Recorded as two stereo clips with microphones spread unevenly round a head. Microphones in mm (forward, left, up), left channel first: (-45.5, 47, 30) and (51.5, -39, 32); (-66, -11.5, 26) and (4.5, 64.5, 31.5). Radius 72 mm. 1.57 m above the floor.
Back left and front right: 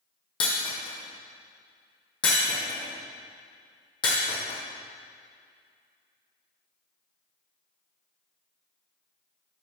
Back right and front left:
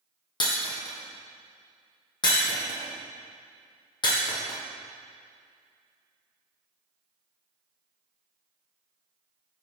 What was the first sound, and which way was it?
Breaking glass, 170° right.